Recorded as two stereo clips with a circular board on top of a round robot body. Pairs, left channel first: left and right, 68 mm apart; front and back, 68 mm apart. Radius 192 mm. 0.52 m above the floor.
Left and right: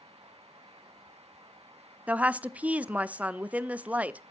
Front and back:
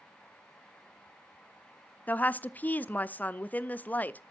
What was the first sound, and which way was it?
A woman speaking, 40° right.